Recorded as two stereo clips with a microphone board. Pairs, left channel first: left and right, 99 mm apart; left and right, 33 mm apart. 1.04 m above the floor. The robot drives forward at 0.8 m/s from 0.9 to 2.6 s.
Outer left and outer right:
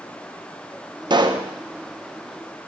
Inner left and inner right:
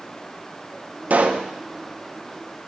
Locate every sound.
1.1 s a pop: 50° right (ahead or behind), 0.6 m; by 1.5 s 40° right (ahead or behind), 0.7 m